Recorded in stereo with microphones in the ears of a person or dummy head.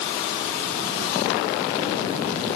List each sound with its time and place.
Only background noise.